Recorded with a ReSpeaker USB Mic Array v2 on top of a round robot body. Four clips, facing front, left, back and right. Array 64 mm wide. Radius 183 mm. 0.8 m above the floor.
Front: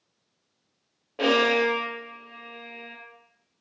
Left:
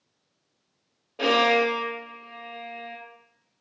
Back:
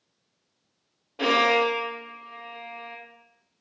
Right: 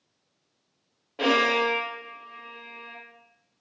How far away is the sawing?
No sawing in this recording.